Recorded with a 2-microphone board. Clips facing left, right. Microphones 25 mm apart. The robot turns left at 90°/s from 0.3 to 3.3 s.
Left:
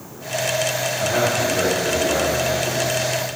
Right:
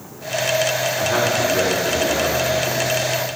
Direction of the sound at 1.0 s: 65° right (ahead or behind).